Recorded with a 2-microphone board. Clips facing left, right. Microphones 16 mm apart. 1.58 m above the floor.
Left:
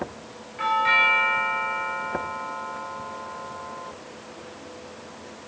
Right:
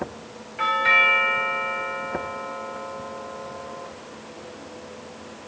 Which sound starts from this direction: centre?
A doorbell, at 0.6 s.